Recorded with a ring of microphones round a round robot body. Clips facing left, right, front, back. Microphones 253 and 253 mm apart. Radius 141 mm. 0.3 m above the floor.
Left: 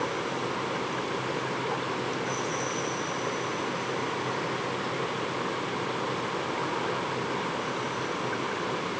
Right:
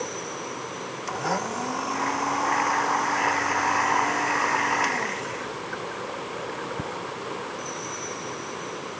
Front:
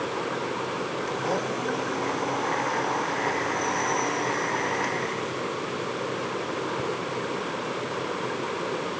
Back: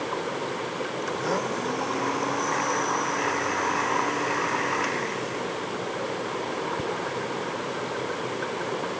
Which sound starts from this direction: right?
A blender, at 1.1 s.